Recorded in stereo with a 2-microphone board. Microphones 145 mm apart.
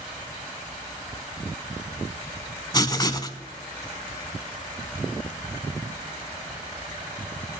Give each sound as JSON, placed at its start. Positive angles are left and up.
{"t": 2.7, "sound": "writing", "side_deg": 30, "distance_m": 0.5}